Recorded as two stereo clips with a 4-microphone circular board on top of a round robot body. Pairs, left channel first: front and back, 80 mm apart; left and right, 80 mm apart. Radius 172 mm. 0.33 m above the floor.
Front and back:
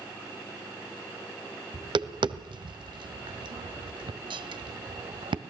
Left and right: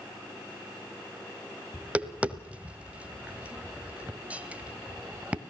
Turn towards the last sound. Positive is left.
turn(degrees=-165)